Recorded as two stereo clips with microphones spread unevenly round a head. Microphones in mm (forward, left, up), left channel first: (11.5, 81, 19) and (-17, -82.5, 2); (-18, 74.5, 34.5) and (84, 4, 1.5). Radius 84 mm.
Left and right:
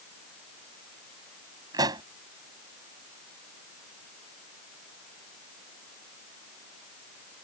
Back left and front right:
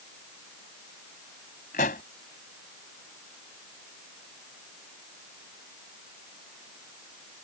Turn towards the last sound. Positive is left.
turn(degrees=-170)